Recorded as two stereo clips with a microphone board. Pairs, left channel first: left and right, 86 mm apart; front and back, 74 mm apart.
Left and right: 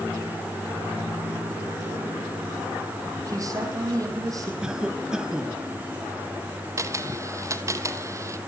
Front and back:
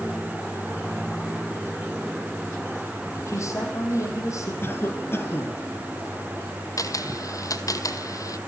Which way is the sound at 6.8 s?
35° right.